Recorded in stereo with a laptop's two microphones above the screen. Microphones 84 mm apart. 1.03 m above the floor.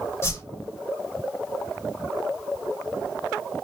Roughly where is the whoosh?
Left.